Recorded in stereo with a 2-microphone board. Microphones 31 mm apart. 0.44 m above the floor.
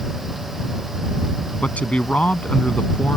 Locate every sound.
1.6 s a man speaking: 45° left (ahead or behind)